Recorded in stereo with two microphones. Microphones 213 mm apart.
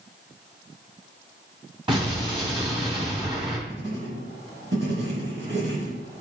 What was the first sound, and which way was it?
An explosion, 25° right (ahead or behind).